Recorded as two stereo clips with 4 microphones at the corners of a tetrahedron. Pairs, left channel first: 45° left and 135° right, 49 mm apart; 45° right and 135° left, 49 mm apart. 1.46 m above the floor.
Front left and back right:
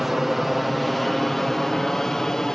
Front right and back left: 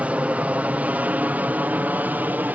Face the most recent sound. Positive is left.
turn(degrees=115)